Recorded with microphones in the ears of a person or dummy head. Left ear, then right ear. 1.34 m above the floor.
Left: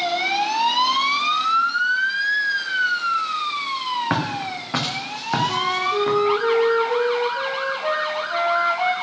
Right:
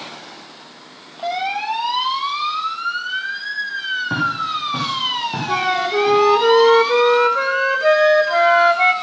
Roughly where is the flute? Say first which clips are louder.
Right 3 dB; right.